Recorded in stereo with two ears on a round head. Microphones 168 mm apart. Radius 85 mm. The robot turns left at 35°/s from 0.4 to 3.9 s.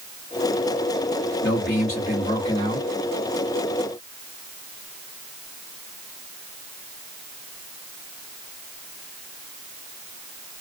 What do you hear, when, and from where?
1.4 s a man speaking: 75° left, 1.7 m; by 2.9 s 20° left, 1.7 m